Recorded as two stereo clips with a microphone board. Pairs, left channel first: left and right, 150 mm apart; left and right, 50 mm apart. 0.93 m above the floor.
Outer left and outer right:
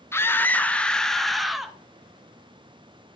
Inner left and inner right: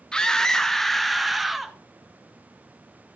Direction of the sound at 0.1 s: 15° left (ahead or behind).